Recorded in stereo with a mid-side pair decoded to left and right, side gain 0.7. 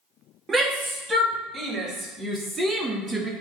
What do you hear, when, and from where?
0.5 s a shout: 25° right, 3 m; by 3.3 s 5° right, 1.7 m